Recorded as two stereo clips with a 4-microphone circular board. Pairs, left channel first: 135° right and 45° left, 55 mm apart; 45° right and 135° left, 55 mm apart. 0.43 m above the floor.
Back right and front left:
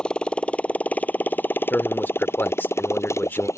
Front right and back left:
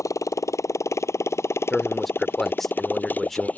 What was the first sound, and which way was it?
A motorcycle, 65° right.